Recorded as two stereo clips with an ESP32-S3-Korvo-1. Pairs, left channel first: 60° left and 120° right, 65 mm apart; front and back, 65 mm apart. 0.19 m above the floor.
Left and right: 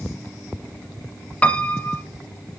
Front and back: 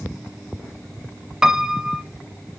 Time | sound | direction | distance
1.4 | a piano | 110° left | 0.8 m